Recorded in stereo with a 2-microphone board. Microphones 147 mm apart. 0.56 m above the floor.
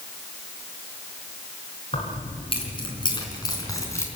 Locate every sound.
1.9 s keys jangling: 45° left (ahead or behind), 4.5 m; by 4.1 s 20° left (ahead or behind), 3.5 m